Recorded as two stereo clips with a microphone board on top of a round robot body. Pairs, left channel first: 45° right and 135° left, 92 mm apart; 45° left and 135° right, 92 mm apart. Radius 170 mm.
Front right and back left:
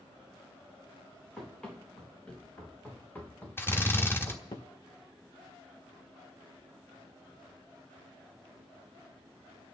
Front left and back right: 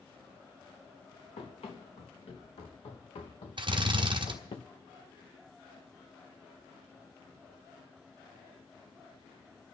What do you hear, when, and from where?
1.4 s running footsteps: 35° left, 4 m; by 4.6 s 5° left, 1.5 m
3.6 s a drill: 110° right, 1.3 m